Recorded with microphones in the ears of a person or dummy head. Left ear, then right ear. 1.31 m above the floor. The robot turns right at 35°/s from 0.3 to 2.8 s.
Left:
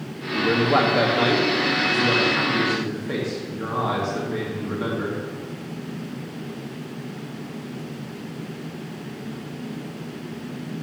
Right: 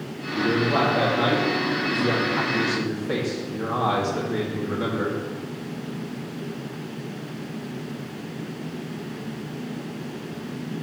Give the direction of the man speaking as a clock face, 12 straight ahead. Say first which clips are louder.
Left 3 dB; 9 o'clock.